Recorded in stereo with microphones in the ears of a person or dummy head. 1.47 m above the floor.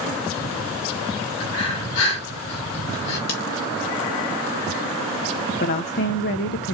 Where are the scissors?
55° left (ahead or behind), 2.5 m.